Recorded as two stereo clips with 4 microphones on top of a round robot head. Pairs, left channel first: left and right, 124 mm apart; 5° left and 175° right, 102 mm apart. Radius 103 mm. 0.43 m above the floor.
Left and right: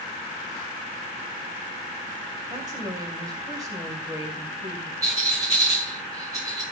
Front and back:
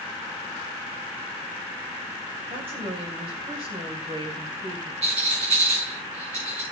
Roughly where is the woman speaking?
Behind right.